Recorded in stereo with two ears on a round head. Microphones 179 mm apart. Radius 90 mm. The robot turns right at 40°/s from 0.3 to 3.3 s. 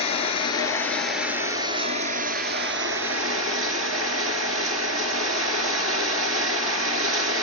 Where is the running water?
150° left, 2.5 m; by 7.4 s 90° right, 2.5 m.